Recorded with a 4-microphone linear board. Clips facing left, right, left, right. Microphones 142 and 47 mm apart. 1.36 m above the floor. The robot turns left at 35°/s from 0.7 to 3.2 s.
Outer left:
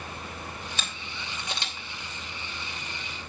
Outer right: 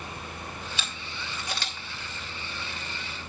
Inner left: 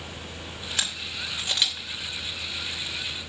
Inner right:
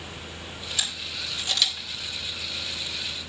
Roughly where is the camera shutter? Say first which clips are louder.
Even, inner left 1 dB; left.